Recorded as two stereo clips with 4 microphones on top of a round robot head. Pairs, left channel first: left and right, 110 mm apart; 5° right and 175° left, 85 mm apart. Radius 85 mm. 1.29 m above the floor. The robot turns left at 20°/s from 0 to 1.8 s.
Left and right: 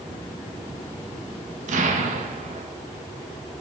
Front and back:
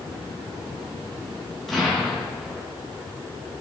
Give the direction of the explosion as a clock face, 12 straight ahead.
3 o'clock.